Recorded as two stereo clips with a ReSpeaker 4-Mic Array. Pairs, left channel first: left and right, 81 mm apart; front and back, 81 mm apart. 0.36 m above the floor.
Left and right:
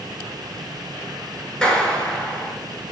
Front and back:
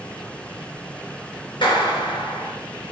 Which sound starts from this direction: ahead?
A clap, at 1.6 s.